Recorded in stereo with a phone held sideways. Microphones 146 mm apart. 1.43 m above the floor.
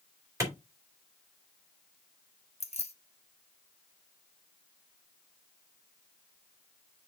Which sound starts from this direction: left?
Keys jangling, at 2.6 s.